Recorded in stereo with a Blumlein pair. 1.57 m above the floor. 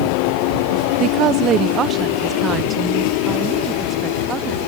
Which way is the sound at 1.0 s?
35° right.